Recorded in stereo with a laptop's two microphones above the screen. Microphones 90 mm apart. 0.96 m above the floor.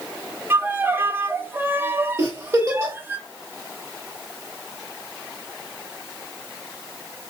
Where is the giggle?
40° right (ahead or behind), 1.8 m.